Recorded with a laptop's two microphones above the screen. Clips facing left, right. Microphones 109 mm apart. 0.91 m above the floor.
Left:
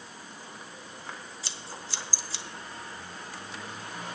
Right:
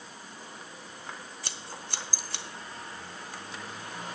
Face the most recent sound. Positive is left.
turn(degrees=-55)  # may be behind; listen again after turning